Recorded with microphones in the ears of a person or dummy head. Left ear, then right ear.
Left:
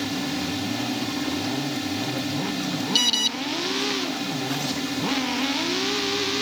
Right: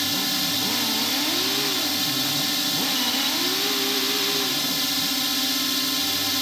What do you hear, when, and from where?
0.0 s a drone: 45° right (ahead or behind)
3.0 s an alarm: 90° left